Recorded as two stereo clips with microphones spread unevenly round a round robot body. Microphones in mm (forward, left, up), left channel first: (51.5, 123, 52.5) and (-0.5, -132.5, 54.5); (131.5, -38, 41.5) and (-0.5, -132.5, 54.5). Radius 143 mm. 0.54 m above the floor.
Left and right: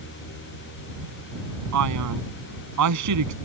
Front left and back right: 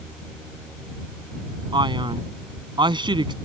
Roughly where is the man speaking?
Right.